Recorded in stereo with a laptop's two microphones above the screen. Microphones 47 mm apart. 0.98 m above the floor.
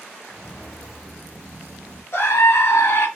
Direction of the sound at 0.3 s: 15° left (ahead or behind).